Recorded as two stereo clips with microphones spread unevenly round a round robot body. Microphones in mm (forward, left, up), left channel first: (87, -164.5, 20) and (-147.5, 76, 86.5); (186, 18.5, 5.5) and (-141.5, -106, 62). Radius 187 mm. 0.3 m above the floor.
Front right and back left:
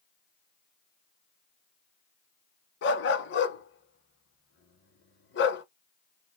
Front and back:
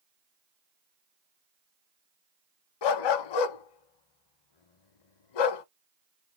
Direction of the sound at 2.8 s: 15° left.